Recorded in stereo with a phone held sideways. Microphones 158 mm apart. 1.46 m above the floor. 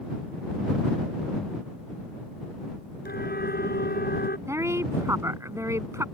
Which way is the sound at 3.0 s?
90° left.